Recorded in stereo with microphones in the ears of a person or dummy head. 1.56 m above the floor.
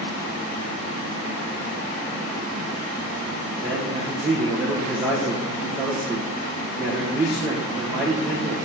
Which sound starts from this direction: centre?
A man speaking, at 3.6 s.